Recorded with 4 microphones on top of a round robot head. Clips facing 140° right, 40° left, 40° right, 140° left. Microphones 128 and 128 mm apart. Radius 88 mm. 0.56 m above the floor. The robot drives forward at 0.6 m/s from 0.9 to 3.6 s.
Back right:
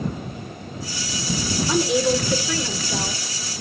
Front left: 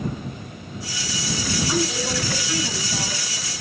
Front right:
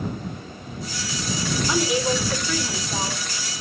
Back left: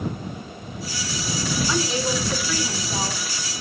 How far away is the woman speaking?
About 2.5 m.